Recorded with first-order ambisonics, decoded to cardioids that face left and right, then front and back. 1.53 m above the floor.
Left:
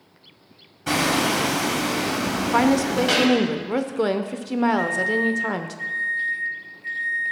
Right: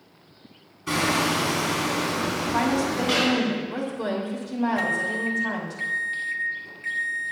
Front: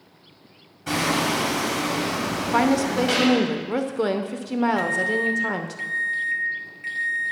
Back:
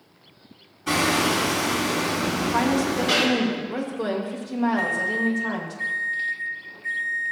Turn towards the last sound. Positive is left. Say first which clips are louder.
# left 3 dB, front 1 dB
turn(degrees=-45)